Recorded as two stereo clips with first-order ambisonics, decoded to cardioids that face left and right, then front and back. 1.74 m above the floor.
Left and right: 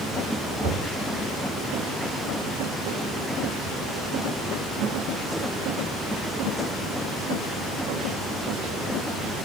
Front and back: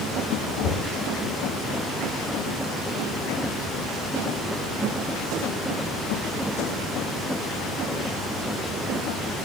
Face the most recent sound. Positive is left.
turn(degrees=5)